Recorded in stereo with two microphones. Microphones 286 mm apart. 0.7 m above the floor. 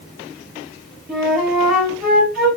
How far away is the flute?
About 1.6 m.